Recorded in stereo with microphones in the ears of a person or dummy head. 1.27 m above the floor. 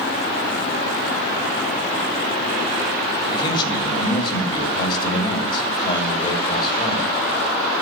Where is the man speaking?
30° left (ahead or behind), 1.7 m.